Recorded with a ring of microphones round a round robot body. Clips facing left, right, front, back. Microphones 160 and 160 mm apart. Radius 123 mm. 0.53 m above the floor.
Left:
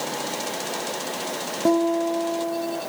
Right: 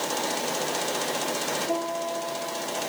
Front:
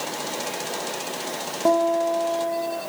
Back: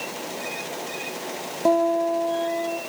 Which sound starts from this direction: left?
A guitar, at 1.6 s.